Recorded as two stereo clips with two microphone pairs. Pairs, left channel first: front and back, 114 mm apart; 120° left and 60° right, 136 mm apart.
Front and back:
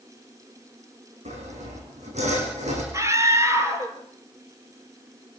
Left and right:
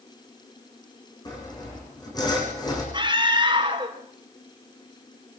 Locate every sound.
1.2 s sawing: straight behind, 8 m
2.9 s a scream: 115° right, 4 m